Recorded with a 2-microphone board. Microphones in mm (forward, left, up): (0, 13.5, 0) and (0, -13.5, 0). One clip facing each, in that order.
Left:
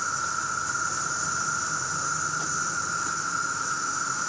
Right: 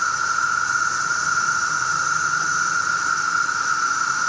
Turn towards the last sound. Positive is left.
turn(degrees=-55)  # may be behind; listen again after turning